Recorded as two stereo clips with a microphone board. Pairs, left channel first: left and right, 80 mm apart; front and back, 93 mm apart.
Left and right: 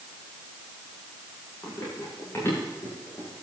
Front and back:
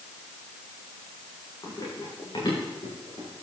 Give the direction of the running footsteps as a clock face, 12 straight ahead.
11 o'clock.